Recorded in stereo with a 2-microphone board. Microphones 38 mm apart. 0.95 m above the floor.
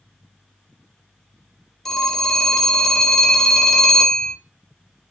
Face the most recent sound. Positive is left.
turn(degrees=5)  # may be behind; listen again after turning